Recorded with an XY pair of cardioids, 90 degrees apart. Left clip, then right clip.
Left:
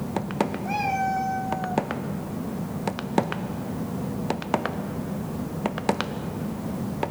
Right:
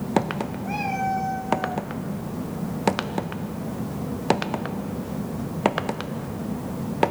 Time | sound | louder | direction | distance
0.7 | a cat meowing | right 1 dB | 30° left | 4 m